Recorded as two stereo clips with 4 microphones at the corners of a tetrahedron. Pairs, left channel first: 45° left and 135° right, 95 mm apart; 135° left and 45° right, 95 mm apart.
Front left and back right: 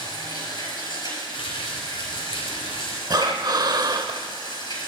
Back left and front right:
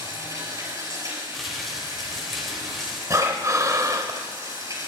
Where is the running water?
5° left, 5.5 m.